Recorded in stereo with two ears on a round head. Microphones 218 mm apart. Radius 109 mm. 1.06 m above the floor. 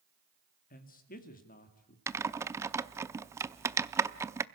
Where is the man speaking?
35° left (ahead or behind), 2 m.